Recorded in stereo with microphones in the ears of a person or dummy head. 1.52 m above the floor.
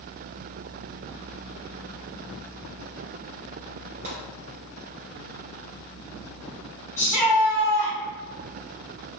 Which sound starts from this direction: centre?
A shout, at 7.0 s.